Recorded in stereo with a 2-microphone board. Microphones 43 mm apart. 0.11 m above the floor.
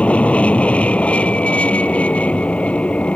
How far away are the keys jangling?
No keys jangling in this recording.